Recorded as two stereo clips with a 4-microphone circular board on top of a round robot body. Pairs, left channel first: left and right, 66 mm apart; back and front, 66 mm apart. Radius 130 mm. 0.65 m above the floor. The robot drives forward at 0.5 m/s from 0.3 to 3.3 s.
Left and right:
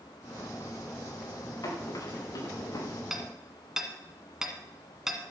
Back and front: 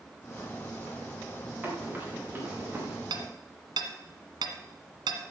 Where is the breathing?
I don't hear breathing.